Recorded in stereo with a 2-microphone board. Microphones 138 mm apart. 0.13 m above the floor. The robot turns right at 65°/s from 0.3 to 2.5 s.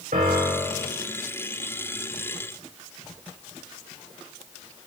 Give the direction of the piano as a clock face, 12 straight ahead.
3 o'clock.